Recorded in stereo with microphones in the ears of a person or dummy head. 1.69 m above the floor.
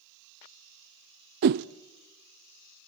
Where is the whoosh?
55° right (ahead or behind), 0.5 m.